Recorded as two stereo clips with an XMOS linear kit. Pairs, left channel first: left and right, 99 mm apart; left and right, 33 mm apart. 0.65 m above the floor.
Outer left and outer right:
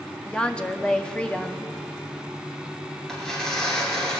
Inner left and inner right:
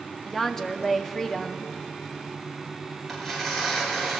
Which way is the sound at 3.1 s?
5° left (ahead or behind).